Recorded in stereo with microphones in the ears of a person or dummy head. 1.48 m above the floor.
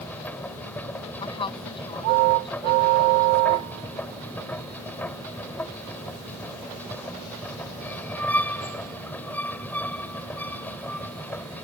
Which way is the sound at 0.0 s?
10° left (ahead or behind).